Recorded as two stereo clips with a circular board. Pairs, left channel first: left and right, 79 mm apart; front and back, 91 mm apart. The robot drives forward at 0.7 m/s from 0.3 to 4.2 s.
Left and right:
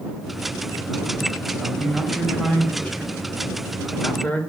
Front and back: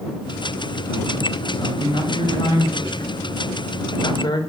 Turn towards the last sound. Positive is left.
turn(degrees=25)